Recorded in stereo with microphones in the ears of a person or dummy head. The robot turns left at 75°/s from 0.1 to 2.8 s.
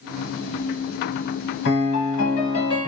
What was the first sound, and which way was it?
A piano, 115° left.